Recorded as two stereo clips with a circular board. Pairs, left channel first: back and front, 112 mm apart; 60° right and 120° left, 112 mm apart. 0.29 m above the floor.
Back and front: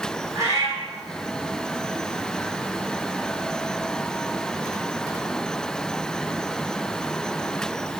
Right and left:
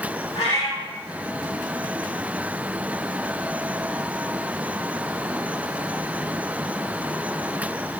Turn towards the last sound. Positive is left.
turn(degrees=-65)